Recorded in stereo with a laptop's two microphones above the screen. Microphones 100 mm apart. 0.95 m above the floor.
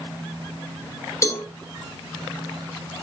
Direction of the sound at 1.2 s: 30° left (ahead or behind).